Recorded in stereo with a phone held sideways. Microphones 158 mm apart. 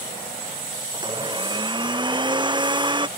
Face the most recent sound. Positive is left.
turn(degrees=-30)  # may be behind; listen again after turning